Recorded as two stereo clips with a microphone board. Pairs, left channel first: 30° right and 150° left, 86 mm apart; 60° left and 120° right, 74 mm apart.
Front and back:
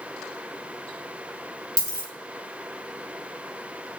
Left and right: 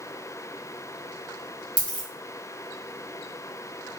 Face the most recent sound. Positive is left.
turn(degrees=-10)